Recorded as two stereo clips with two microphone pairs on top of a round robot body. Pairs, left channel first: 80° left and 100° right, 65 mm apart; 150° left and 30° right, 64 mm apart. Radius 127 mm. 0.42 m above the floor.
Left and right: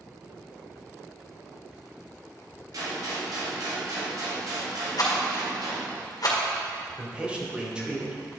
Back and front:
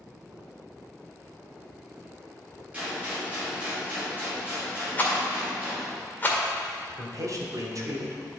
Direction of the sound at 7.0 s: 30° right.